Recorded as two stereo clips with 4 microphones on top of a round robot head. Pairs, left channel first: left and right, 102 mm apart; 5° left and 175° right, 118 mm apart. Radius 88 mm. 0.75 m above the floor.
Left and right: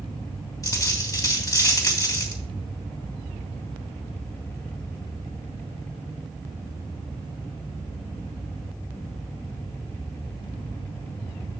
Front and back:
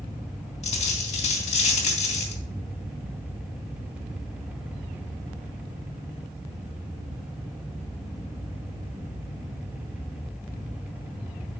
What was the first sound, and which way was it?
A dropped coin, 30° left.